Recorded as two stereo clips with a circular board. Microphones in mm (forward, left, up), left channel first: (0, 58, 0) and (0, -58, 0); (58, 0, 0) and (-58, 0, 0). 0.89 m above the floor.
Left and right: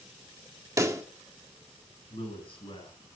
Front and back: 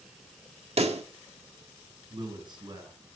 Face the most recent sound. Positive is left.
turn(degrees=130)